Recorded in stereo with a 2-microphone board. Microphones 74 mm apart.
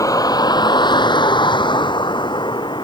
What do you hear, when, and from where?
0.0 s a vehicle: 50° left (ahead or behind); by 2.9 s 75° left (ahead or behind)